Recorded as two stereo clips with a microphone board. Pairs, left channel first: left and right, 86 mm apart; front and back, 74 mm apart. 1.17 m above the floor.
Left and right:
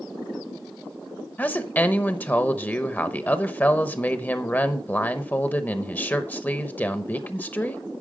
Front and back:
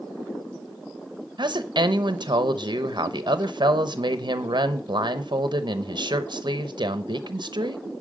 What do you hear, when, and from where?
1.4 s a woman speaking: 160° left, 0.8 m